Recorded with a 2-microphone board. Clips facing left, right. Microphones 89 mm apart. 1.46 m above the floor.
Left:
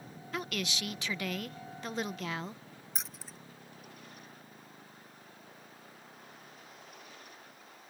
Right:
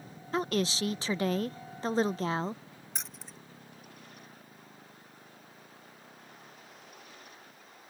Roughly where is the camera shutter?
No camera shutter in this recording.